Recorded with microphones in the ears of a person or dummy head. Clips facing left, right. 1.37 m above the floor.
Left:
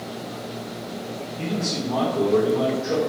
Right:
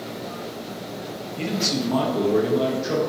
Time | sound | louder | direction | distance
1.4 | a man speaking | right 2 dB | 75° right (ahead or behind) | 0.7 m